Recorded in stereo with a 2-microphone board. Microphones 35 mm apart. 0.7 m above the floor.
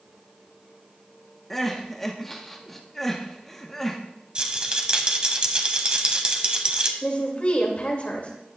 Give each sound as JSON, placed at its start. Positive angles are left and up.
{"t": 1.5, "sound": "crying", "side_deg": 10, "distance_m": 1.0}
{"t": 4.3, "sound": "a rattle", "side_deg": -30, "distance_m": 0.9}
{"t": 7.0, "sound": "a woman speaking", "side_deg": 40, "distance_m": 2.0}